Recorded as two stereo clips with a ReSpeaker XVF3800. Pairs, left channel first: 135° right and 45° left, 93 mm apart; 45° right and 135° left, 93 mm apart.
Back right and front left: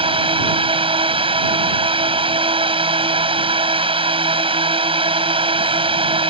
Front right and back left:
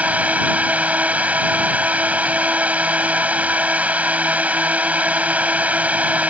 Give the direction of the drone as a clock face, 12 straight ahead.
10 o'clock.